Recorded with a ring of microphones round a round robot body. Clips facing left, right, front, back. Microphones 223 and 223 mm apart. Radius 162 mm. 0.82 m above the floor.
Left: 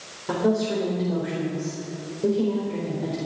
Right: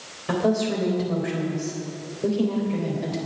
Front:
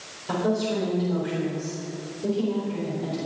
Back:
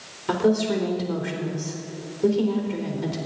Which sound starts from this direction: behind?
A woman speaking, at 0.3 s.